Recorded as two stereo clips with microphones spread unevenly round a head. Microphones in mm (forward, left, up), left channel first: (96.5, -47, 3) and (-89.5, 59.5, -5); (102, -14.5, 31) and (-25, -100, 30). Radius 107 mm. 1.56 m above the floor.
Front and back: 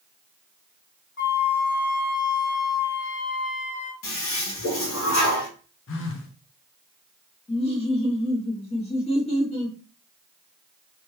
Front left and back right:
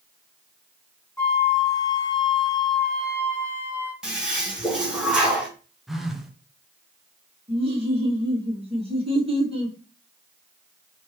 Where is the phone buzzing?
60° right, 0.7 m.